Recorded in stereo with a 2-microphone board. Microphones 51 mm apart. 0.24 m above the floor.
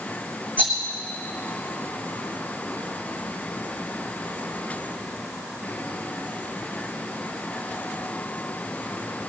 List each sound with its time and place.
0.6 s a rattle: 30° left (ahead or behind), 3 m